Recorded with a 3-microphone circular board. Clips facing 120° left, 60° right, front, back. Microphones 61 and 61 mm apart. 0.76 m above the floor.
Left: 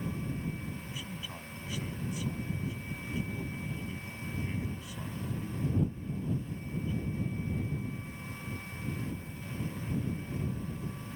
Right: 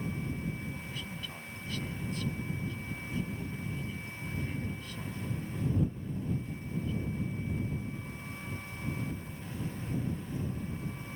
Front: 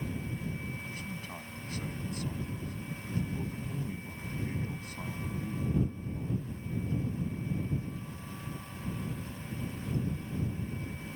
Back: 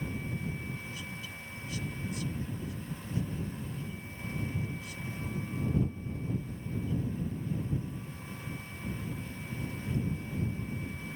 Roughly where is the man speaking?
Ahead left.